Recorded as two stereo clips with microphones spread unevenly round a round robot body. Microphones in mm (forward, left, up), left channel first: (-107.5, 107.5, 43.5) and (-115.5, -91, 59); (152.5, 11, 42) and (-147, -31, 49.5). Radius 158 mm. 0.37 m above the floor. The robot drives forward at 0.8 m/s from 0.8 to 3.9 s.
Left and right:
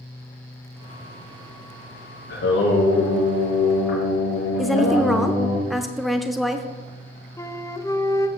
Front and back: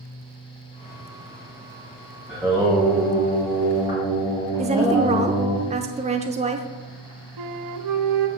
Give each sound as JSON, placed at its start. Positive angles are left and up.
{"t": 2.3, "sound": "singing", "azimuth_deg": 95, "distance_m": 6.0}
{"t": 4.6, "sound": "a woman speaking", "azimuth_deg": 165, "distance_m": 0.8}
{"t": 7.4, "sound": "a flute", "azimuth_deg": 165, "distance_m": 0.8}